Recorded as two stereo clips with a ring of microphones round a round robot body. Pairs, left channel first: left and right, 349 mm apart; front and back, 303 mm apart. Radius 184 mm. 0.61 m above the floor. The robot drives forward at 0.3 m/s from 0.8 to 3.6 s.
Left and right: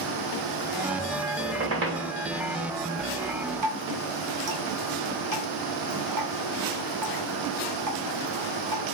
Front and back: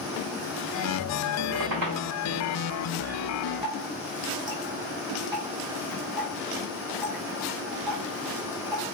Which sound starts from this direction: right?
Dripping, at 3.6 s.